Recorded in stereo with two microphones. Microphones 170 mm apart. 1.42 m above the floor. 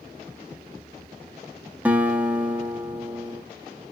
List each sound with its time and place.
1.9 s a guitar: 10° right (ahead or behind), 0.9 m